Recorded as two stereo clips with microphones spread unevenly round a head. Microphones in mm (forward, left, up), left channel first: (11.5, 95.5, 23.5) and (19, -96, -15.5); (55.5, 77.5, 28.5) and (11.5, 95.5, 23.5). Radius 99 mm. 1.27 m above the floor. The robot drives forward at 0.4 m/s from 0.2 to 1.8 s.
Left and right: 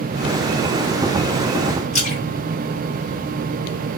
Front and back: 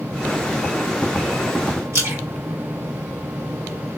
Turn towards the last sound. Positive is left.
turn(degrees=150)